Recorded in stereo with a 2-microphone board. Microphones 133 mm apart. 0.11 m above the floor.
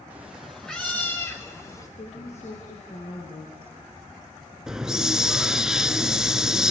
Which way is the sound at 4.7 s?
5° right (ahead or behind).